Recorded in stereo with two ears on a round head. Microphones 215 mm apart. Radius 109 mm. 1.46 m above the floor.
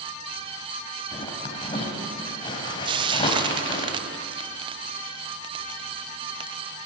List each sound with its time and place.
1.1 s a zipper: 20° left (ahead or behind), 4.5 m
2.9 s frying: 20° right (ahead or behind), 0.5 m